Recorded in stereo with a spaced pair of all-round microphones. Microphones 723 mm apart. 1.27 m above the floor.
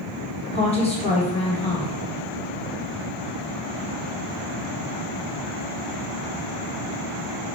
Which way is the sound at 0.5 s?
10° left (ahead or behind).